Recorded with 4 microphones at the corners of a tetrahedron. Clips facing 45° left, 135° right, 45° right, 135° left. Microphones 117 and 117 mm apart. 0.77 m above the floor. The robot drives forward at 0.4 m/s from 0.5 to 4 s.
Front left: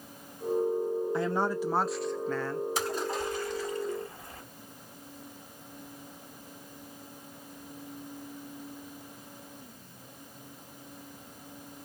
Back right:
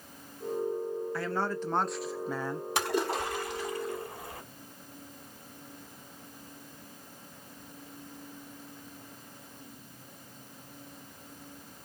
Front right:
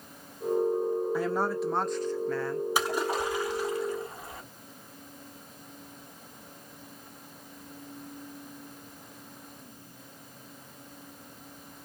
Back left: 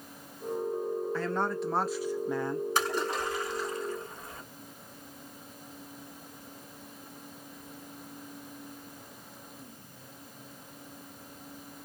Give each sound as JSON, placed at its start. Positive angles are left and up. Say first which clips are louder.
{"t": 1.1, "sound": "a woman speaking", "louder": "front left 2 dB, front right 2 dB", "azimuth_deg": 10, "distance_m": 0.6}
{"t": 2.8, "sound": "a splash", "louder": "back right 2 dB, front right 2 dB", "azimuth_deg": -125, "distance_m": 3.5}